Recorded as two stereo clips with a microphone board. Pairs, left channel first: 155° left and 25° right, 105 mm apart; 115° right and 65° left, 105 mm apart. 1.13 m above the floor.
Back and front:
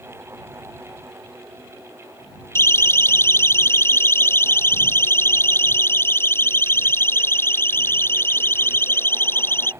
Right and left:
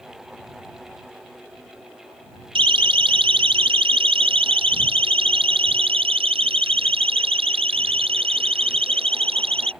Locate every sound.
2.5 s a siren: 95° left; by 9.7 s 90° left